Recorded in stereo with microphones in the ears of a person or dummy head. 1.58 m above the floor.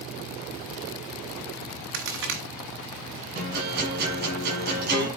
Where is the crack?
55° right (ahead or behind), 1.4 m.